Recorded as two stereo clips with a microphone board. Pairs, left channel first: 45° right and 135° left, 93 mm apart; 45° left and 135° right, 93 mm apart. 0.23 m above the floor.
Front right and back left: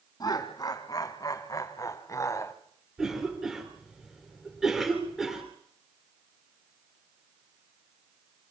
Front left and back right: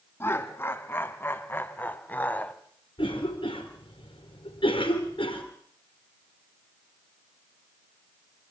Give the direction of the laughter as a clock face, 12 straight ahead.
12 o'clock.